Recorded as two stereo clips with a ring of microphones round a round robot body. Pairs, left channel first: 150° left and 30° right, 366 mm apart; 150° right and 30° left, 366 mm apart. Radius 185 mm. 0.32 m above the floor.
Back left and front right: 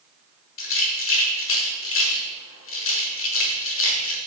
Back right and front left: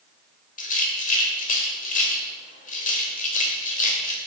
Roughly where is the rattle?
Behind.